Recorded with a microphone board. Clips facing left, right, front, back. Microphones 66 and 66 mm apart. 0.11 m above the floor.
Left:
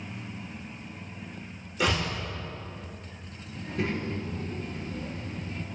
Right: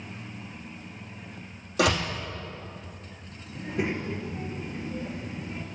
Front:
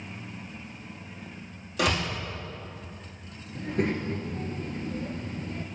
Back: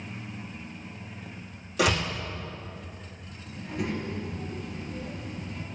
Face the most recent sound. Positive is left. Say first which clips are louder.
# right 1 dB, front 4 dB
turn(degrees=-25)